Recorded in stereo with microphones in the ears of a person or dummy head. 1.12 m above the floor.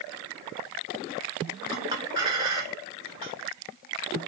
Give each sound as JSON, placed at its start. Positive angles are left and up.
{"t": 1.7, "sound": "a clink", "side_deg": -25, "distance_m": 1.9}